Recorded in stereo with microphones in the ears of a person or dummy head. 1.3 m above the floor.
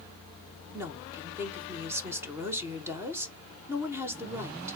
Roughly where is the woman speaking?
Centre.